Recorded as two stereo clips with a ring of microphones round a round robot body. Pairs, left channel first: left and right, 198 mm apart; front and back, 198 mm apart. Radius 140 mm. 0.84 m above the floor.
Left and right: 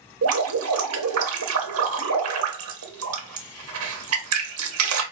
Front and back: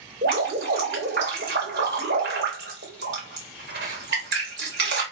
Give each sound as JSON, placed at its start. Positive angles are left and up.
{"t": 0.2, "sound": "dripping", "azimuth_deg": -125, "distance_m": 0.7}